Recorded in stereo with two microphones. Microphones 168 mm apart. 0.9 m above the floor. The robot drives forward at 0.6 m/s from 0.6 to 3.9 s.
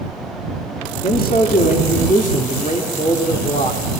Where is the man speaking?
65° left (ahead or behind), 2.5 m; by 4.0 s 45° left (ahead or behind), 3 m.